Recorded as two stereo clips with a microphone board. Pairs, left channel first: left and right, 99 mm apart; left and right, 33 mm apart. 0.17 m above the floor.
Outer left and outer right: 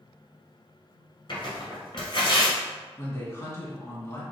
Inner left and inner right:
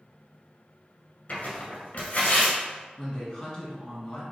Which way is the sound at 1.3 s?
55° left (ahead or behind).